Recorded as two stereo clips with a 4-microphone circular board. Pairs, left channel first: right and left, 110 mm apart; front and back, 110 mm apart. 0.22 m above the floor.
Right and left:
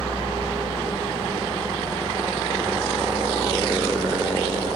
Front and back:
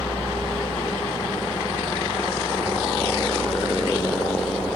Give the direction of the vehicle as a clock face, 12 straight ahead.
9 o'clock.